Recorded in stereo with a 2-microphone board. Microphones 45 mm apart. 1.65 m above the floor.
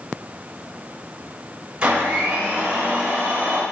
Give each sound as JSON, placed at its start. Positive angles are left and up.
{"t": 1.8, "sound": "a blender", "side_deg": -20, "distance_m": 9.0}